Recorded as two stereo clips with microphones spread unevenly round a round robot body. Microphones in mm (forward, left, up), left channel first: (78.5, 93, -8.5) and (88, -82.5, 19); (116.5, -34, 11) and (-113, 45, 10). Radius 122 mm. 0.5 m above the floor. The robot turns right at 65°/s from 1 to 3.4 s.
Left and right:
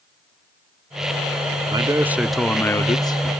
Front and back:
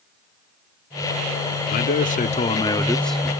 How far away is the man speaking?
About 0.7 m.